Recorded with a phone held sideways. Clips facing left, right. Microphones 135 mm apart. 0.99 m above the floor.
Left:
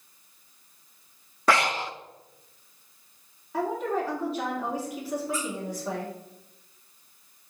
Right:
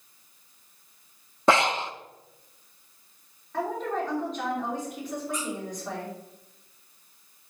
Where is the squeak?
5° left (ahead or behind), 3 m.